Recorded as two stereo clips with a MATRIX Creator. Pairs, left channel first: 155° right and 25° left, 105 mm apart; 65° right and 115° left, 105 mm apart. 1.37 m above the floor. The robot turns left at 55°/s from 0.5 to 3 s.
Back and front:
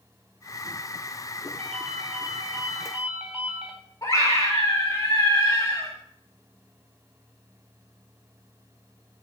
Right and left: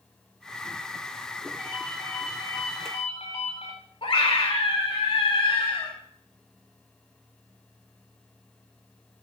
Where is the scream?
100° right, 4 m.